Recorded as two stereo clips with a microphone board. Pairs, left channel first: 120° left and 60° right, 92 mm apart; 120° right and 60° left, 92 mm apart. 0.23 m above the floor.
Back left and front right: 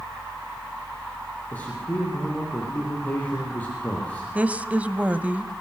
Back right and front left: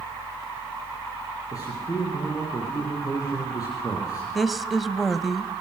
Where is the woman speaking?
25° right, 1.2 m.